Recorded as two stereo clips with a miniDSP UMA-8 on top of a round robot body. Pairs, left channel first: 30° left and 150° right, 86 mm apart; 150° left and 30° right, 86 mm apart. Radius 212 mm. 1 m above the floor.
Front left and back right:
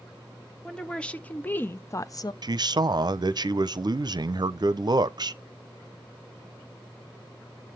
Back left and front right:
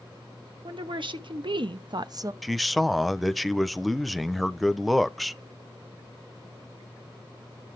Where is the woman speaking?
50° right, 2 m; by 2.3 s 10° left, 0.9 m.